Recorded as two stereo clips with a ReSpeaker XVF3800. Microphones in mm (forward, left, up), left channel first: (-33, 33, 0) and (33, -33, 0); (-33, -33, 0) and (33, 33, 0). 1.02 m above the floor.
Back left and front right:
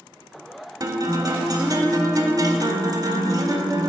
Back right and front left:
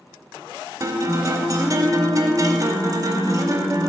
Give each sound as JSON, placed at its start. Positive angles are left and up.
{"t": 0.8, "sound": "a guitar", "azimuth_deg": 0, "distance_m": 0.7}